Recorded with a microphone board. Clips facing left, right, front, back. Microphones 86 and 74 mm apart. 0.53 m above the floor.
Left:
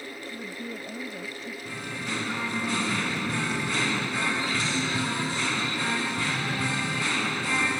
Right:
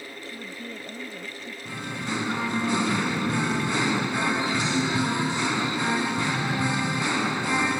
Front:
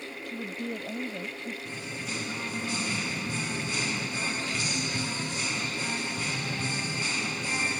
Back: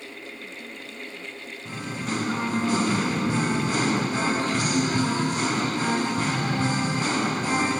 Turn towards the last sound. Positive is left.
turn(degrees=-160)